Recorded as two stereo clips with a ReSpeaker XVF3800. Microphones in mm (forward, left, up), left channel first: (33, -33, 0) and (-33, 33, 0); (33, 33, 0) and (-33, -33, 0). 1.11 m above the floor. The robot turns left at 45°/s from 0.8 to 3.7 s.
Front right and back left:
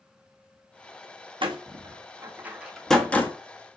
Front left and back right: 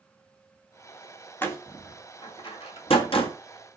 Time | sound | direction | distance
1.4 | a door slam | 110° left | 1.3 m